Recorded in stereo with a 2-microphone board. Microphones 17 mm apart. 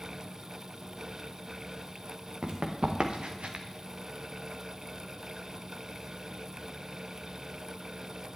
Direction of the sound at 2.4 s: 65° right (ahead or behind).